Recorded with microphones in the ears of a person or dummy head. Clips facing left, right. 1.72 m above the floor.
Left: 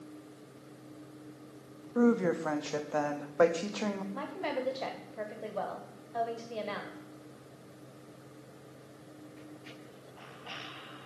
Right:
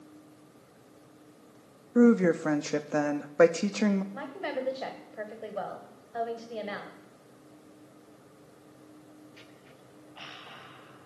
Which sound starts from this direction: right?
A woman speaking, at 1.9 s.